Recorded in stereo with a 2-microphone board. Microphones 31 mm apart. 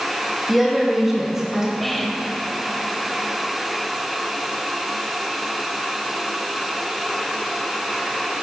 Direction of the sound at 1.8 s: Centre (ahead or behind).